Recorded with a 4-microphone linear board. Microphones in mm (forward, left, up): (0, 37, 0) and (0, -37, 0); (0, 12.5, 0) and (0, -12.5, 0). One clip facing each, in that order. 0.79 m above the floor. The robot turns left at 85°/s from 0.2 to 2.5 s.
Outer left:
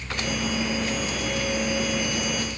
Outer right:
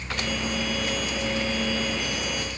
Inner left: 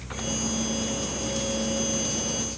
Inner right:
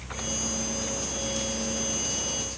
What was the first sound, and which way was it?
Only background noise.